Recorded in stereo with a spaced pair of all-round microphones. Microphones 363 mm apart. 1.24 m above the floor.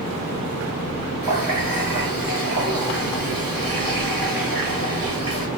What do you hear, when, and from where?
1.2 s a running tap: 75° right (ahead or behind), 2.0 m